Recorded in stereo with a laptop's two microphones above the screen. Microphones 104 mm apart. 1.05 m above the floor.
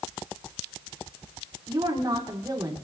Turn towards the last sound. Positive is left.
turn(degrees=-40)  # may be behind; listen again after turning